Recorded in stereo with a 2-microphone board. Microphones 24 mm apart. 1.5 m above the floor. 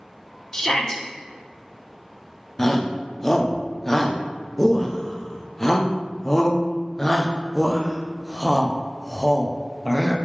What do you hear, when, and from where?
0.5 s a shout: 25° left (ahead or behind), 1.2 m
2.6 s a shout: 15° left (ahead or behind), 0.8 m